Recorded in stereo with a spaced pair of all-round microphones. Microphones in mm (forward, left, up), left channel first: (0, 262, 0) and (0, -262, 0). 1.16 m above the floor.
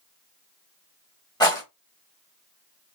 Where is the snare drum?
No snare drum in this recording.